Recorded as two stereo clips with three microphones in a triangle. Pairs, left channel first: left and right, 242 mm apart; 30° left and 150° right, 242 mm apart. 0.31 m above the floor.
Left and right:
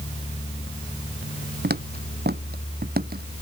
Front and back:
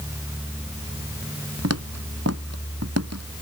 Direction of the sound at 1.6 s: 140° right.